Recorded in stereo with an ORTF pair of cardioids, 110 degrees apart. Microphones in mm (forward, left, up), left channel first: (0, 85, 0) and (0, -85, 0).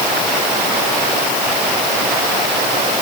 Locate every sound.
Only background noise.